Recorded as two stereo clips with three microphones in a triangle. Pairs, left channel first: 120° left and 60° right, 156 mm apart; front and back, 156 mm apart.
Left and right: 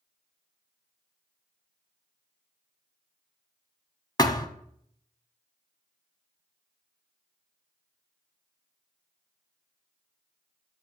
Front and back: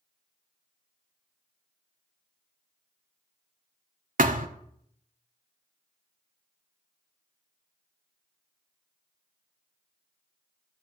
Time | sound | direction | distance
4.2 | a thud | straight behind | 0.7 m